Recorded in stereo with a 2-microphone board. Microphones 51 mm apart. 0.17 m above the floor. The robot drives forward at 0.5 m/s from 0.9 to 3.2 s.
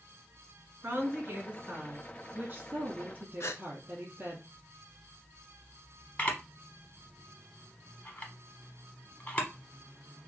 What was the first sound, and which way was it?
A woman speaking, 30° right (ahead or behind).